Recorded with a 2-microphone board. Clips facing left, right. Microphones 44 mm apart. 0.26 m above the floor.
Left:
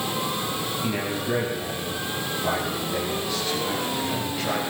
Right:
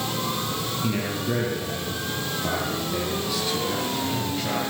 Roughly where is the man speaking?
Centre.